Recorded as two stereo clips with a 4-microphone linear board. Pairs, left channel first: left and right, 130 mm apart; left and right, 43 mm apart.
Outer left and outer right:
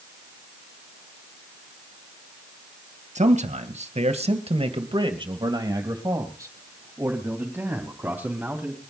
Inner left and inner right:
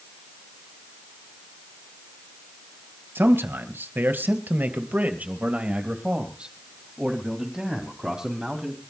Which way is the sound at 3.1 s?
60° right (ahead or behind).